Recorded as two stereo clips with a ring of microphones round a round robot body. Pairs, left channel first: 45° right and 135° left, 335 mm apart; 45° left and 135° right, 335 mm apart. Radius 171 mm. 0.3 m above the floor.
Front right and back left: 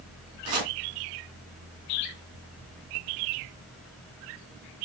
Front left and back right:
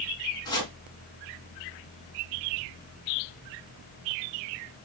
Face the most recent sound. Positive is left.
turn(degrees=125)